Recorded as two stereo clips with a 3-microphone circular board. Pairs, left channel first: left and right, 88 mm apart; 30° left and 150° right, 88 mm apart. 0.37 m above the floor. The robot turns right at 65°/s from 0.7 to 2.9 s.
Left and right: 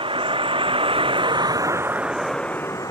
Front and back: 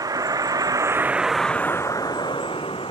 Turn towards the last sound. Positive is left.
turn(degrees=40)